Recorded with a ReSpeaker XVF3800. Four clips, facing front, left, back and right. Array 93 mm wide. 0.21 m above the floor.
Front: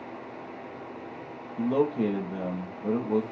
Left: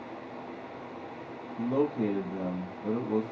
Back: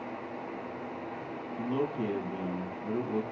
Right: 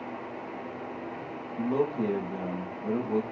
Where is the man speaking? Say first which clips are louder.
Even, front 7 dB; straight ahead, 5.5 m.